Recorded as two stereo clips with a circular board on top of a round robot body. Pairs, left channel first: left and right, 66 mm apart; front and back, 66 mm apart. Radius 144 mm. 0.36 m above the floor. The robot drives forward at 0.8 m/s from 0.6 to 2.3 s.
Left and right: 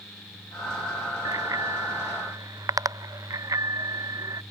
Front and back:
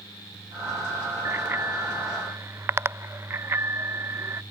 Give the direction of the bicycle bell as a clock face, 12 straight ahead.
4 o'clock.